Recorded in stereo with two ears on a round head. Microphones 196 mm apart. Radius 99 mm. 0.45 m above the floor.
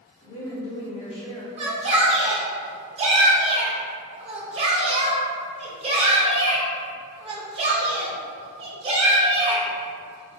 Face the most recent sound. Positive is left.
turn(degrees=-30)  # may be behind; listen again after turning